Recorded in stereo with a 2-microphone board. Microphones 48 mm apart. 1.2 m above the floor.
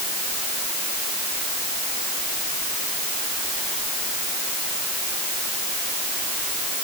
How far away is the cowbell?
I don't hear a cowbell.